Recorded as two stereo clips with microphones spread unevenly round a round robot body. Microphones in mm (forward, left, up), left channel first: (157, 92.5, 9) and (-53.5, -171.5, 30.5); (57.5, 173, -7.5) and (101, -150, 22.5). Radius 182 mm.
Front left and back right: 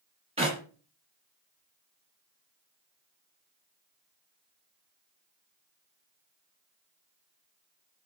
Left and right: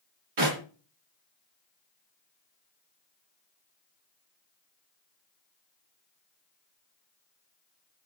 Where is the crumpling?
No crumpling in this recording.